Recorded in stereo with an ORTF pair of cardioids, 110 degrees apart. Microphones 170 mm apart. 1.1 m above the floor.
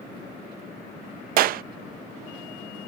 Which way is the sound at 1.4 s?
60° right.